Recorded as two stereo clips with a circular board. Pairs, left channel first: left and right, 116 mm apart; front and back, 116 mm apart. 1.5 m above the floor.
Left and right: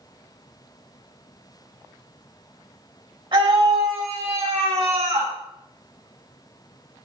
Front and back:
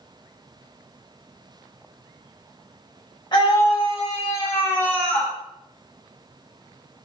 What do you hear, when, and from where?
3.3 s a scream: 50° right, 3 m; by 5.3 s 80° right, 2 m